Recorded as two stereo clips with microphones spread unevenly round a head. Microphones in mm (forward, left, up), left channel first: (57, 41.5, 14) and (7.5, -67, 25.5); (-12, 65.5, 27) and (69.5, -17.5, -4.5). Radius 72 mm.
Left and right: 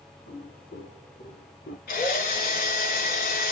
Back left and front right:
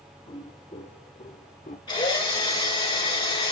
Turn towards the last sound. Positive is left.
turn(degrees=85)